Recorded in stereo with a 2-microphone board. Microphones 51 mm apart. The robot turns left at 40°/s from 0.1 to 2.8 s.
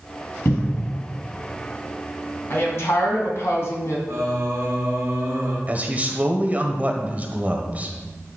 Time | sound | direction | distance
0.5 | a cupboard door | 60° left (ahead or behind) | 1.3 m
2.5 | a woman speaking | 50° left (ahead or behind) | 2.5 m
4.1 | singing | 70° right (ahead or behind) | 2 m
5.7 | a man speaking | 35° right (ahead or behind) | 1.0 m